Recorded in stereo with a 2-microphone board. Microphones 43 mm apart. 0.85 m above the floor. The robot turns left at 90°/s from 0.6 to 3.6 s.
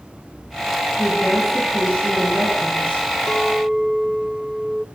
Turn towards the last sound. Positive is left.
turn(degrees=-10)  # may be behind; listen again after turning